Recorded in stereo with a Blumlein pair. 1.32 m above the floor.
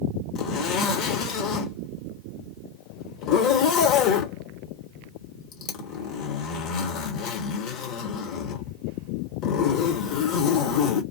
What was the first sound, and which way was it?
A zipper, 40° left.